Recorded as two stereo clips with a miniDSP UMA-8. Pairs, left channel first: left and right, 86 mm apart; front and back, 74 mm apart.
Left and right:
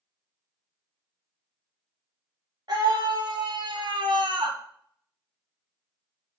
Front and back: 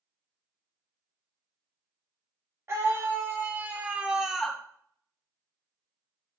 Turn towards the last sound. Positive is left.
turn(degrees=-75)